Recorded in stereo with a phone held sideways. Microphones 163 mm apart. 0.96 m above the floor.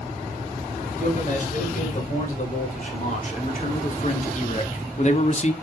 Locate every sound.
1.0 s a man speaking: 50° left (ahead or behind), 4 m; by 5.5 s 45° left (ahead or behind), 1.0 m